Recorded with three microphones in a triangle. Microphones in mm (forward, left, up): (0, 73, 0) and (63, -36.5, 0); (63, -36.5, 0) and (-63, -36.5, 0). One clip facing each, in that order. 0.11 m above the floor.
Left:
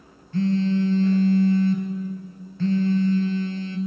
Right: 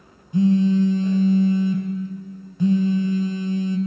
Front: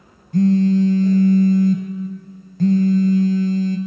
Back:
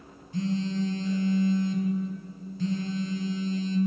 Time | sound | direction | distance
0.3 | a phone buzzing | 15° left | 0.9 m